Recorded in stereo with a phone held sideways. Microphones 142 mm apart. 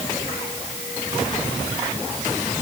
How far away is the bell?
I don't hear a bell.